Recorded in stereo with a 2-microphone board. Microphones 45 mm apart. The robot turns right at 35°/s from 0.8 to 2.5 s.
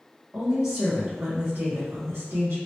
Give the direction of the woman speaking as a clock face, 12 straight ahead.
6 o'clock.